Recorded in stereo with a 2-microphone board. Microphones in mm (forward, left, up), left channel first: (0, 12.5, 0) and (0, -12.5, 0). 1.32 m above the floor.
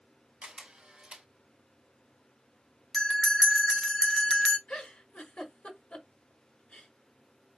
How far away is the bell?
About 0.9 m.